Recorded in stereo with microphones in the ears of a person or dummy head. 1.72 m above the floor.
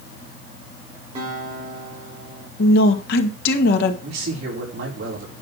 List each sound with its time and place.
1.1 s a guitar: 30° right (ahead or behind), 5 m
2.6 s a woman speaking: 65° left (ahead or behind), 2 m
4.0 s a man speaking: 60° right (ahead or behind), 5 m